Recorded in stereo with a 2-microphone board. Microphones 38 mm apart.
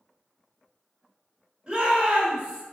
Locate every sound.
1.7 s a shout: 25° right (ahead or behind), 1.7 m